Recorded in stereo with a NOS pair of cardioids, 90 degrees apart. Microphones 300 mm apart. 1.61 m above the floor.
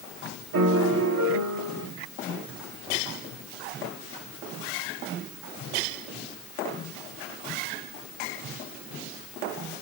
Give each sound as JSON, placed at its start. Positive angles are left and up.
{"t": 0.5, "sound": "a piano", "azimuth_deg": -65, "distance_m": 1.3}